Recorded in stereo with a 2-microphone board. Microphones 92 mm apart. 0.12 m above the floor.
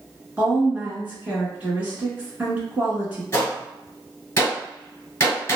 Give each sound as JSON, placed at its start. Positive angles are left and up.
{"t": 0.4, "sound": "a woman speaking", "side_deg": -20, "distance_m": 1.1}
{"t": 3.3, "sound": "a gunshot", "side_deg": 30, "distance_m": 1.6}